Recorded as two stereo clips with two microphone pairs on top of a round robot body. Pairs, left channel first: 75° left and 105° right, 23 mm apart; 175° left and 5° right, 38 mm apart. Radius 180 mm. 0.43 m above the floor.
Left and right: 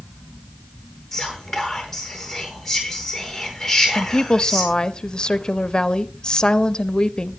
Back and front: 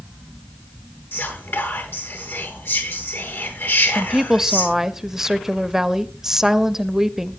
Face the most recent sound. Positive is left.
turn(degrees=80)